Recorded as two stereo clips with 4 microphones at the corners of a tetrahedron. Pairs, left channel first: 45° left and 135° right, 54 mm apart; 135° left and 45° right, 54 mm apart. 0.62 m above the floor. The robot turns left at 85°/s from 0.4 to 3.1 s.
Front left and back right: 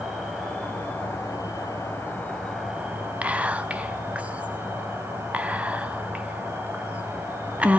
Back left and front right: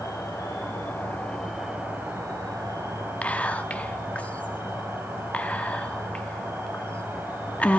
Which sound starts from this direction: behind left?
An insect, at 0.0 s.